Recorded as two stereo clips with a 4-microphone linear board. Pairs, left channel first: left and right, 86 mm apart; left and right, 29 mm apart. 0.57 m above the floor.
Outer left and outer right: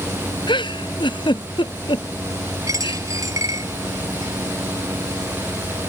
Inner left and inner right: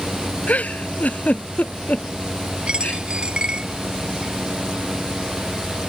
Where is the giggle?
65° left (ahead or behind).